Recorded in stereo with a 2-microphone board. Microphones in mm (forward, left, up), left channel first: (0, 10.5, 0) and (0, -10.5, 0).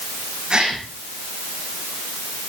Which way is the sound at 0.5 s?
40° right (ahead or behind).